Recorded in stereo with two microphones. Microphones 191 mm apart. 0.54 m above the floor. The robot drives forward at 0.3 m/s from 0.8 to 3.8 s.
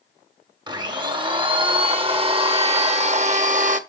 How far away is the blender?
About 1.6 m.